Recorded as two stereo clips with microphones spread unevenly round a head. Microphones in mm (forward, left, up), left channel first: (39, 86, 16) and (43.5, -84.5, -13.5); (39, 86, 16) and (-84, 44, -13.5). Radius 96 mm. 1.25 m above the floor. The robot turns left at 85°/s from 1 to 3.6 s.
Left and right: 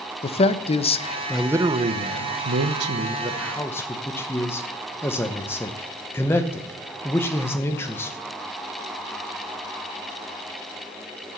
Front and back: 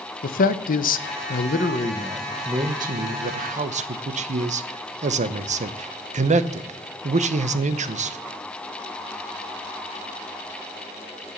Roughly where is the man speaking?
Ahead left.